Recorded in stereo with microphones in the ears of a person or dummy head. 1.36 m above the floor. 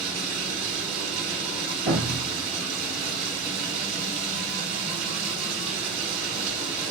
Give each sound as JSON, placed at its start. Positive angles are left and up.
{"t": 0.0, "sound": "running water", "side_deg": -45, "distance_m": 6.0}
{"t": 1.9, "sound": "a thud", "side_deg": -70, "distance_m": 4.0}